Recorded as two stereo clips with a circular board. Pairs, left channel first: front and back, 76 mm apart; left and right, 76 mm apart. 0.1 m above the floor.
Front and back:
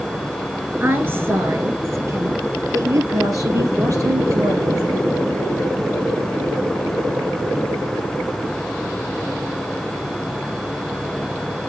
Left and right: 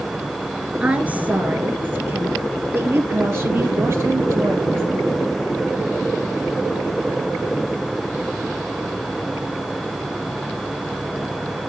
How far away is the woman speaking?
About 1.5 m.